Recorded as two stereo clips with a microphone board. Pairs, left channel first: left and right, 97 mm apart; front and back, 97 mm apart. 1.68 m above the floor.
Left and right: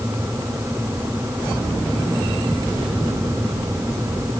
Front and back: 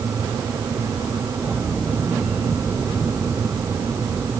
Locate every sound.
Only background noise.